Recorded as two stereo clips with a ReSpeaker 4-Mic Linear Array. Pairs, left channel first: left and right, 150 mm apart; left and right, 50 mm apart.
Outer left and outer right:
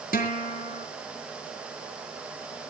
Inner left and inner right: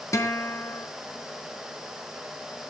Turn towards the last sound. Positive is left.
turn(degrees=65)  # may be behind; listen again after turning